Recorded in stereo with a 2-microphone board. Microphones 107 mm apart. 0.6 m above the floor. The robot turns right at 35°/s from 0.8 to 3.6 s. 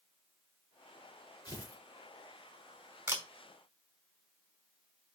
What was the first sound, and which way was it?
Tearing paper, 40° left (ahead or behind).